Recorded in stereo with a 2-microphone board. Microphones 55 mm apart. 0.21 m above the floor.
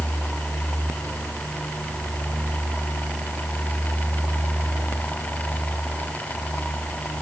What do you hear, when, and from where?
Only background noise.